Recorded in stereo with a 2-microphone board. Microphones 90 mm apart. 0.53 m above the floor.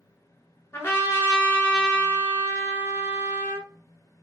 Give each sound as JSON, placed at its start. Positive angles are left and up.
{"t": 0.7, "sound": "a trumpet", "side_deg": 25, "distance_m": 1.3}